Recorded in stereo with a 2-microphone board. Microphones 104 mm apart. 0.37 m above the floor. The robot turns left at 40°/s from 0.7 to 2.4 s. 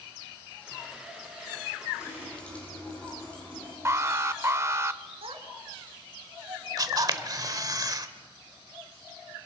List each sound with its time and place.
2.0 s a running tap: 30° left (ahead or behind), 10 m; by 3.8 s 10° left (ahead or behind), 10 m
3.9 s an alarm: 30° right (ahead or behind), 0.7 m
5.2 s a child speaking: 70° right (ahead or behind), 3 m
6.8 s a camera shutter: 40° right (ahead or behind), 1.1 m